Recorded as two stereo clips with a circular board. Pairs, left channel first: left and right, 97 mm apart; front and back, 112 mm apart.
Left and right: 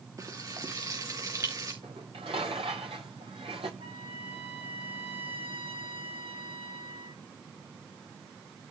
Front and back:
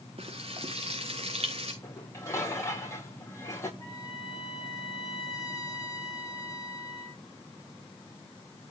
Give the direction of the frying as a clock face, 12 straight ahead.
5 o'clock.